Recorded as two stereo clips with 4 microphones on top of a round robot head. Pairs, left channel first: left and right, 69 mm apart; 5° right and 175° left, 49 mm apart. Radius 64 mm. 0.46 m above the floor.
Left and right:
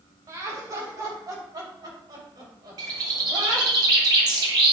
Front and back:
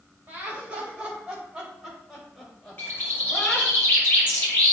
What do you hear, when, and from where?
0.3 s laughter: 125° right, 3.5 m; by 3.8 s 75° right, 3 m
2.8 s a bird: 65° right, 1.8 m